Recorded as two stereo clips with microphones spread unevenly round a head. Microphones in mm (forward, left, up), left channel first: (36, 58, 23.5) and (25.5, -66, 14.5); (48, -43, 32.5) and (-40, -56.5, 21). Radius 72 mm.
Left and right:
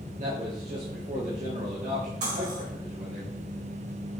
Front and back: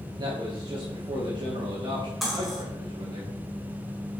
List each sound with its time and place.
0.2 s a man speaking: 135° right, 2.5 m
2.2 s cutlery clinking: 80° right, 4.5 m